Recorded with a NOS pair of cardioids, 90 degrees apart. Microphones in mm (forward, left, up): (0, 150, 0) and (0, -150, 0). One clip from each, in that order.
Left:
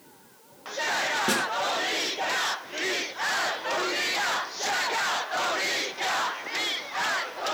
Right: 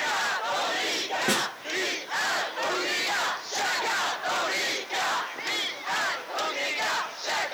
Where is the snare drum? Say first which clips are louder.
Right 3 dB; straight ahead, 7 m.